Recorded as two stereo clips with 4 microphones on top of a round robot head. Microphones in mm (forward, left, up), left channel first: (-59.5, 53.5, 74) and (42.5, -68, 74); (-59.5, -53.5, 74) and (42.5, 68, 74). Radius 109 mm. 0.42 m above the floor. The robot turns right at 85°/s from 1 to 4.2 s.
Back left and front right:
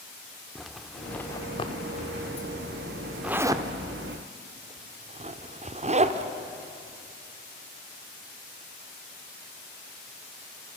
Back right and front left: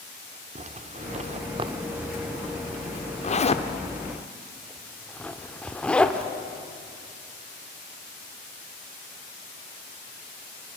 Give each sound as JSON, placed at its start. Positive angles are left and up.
{"t": 0.6, "sound": "a zipper", "azimuth_deg": 40, "distance_m": 1.2}